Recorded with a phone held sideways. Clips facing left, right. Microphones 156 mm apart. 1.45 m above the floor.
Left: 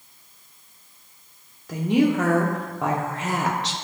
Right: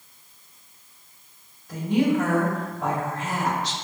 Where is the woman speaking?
85° left, 0.7 m.